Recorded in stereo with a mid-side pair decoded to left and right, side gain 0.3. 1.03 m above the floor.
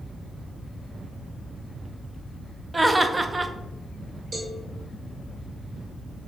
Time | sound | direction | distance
2.7 | laughter | 30° right | 0.6 m
4.3 | a cowbell | 50° right | 1.4 m